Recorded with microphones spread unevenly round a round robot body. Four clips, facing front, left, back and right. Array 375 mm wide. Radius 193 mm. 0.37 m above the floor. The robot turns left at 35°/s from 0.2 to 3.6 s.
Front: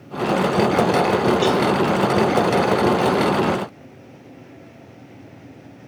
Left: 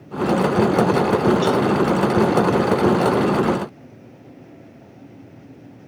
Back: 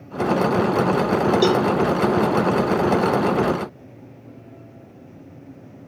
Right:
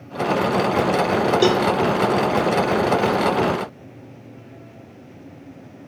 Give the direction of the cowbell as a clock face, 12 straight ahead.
3 o'clock.